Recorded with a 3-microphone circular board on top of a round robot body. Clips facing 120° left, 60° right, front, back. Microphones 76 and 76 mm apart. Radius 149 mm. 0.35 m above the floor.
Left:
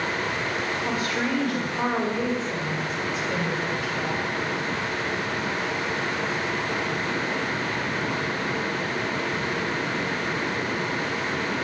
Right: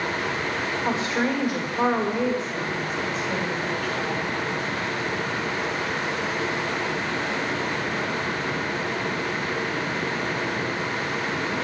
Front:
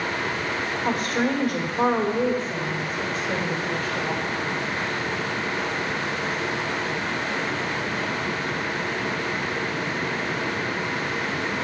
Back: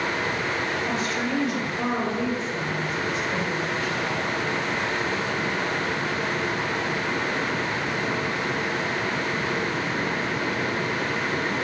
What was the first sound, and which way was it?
A woman speaking, 5° right.